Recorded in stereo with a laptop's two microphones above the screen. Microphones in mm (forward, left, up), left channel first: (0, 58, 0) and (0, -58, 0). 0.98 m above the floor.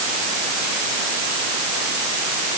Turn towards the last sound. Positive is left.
No sound to turn to.